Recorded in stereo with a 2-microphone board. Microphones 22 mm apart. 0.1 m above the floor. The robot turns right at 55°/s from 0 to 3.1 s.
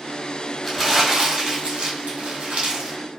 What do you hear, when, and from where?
0.6 s crumpling: 175° left, 1.4 m; by 3.0 s 55° right, 1.4 m